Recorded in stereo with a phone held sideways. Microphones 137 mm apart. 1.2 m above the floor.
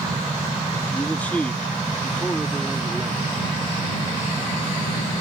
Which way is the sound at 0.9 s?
15° left (ahead or behind).